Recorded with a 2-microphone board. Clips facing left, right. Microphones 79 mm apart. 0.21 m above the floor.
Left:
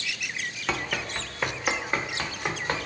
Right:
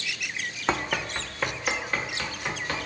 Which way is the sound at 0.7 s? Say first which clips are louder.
Right 3 dB; 35° right (ahead or behind).